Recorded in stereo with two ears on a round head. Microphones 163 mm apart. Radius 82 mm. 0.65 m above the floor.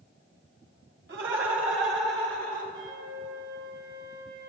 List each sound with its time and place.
1.1 s laughter: 70° right (ahead or behind), 2.5 m; by 2.6 s 45° right (ahead or behind), 2.5 m
2.7 s a flute: 65° right (ahead or behind), 3.5 m